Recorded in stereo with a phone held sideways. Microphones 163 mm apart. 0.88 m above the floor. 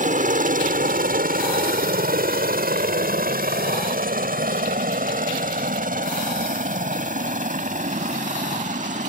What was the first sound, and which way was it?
A helicopter, 55° right (ahead or behind).